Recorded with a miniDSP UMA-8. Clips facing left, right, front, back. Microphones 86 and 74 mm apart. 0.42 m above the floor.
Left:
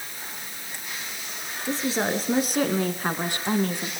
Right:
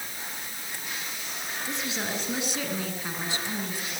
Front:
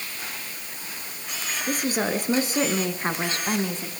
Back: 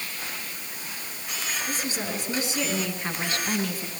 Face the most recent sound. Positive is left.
turn(degrees=70)